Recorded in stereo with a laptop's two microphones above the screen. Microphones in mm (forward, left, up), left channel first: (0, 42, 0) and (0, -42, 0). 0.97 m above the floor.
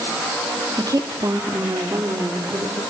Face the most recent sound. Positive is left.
turn(degrees=-40)  # may be behind; listen again after turning